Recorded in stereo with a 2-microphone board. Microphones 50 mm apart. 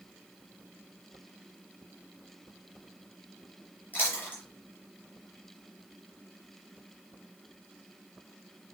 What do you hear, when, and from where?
3.9 s chewing: 35° left (ahead or behind), 6.5 m